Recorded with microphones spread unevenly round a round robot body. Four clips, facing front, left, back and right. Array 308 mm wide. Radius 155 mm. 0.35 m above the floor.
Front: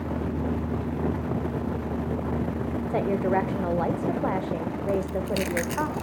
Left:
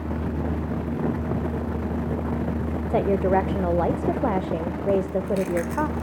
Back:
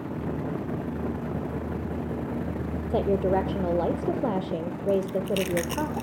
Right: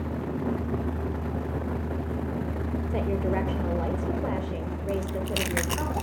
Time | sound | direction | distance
2.9 | a woman speaking | 115° left | 1.0 m
4.9 | chewing | 80° right | 0.6 m